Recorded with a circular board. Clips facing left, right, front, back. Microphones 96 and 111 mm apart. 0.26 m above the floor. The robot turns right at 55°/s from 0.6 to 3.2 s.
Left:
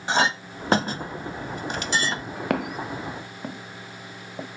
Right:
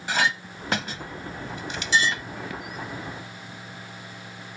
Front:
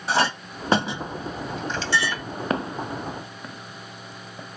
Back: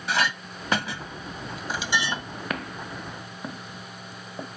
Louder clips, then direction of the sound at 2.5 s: Left 8 dB, front 7 dB; 60° left.